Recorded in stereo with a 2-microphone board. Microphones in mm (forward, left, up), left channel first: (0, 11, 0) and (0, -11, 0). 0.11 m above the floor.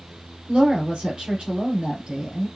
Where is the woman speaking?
50° right (ahead or behind), 2.5 m.